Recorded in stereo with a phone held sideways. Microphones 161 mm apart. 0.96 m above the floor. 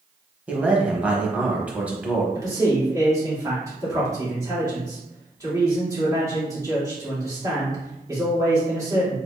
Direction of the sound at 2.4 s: 20° right (ahead or behind).